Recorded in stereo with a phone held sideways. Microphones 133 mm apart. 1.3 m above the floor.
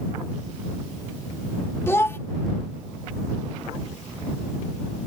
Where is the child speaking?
20° left (ahead or behind).